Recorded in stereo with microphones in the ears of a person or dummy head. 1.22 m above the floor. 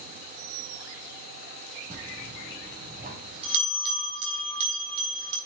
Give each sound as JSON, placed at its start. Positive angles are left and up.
{"t": 1.9, "sound": "a bell", "side_deg": -35, "distance_m": 4.0}